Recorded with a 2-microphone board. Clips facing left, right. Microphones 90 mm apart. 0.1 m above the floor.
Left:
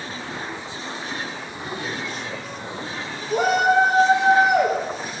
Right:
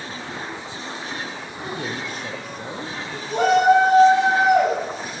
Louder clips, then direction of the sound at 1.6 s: Right 1 dB; 55° right (ahead or behind).